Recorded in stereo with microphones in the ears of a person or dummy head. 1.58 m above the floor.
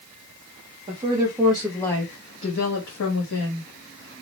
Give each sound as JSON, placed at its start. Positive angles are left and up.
{"t": 0.9, "sound": "a woman speaking", "side_deg": -30, "distance_m": 0.9}